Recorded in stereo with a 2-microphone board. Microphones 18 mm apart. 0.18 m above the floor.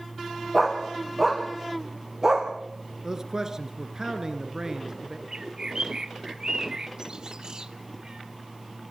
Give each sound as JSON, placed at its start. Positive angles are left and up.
{"t": 0.5, "sound": "a dog barking", "side_deg": -5, "distance_m": 5.0}
{"t": 3.0, "sound": "a man speaking", "side_deg": -30, "distance_m": 3.0}
{"t": 5.3, "sound": "a bird", "side_deg": -40, "distance_m": 1.0}